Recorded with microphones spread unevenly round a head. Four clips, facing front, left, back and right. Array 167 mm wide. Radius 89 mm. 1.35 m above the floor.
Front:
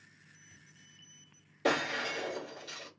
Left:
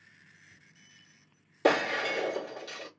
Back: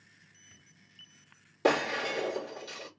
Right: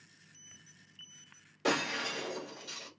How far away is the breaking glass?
About 2.5 m.